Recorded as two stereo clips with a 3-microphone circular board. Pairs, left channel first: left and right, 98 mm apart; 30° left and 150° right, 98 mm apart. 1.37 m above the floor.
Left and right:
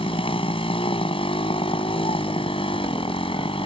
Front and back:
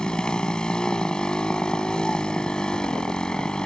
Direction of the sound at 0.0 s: 110° left.